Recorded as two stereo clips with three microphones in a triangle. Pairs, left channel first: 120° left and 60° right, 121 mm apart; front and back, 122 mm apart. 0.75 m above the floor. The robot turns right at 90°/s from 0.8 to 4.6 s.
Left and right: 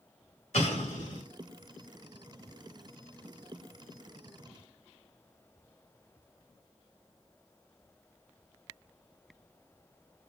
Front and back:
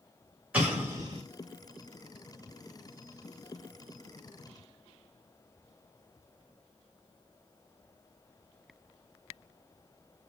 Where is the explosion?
100° left, 1.7 m; by 1.2 s 140° left, 1.7 m.